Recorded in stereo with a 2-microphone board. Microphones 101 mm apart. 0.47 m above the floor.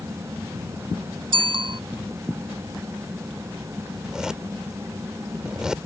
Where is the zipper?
5° right (ahead or behind).